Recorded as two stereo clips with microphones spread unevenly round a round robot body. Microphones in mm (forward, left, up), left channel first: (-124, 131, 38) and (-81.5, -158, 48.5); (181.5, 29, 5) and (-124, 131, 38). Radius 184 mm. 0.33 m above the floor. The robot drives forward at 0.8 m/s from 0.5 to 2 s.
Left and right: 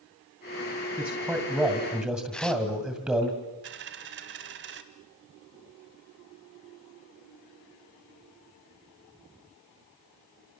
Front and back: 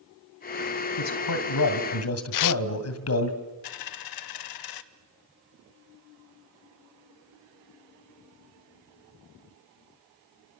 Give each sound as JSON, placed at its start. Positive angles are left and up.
{"t": 1.0, "sound": "a man speaking", "azimuth_deg": 5, "distance_m": 3.0}
{"t": 2.3, "sound": "tearing paper", "azimuth_deg": 10, "distance_m": 0.5}
{"t": 3.6, "sound": "a dropped coin", "azimuth_deg": -25, "distance_m": 1.1}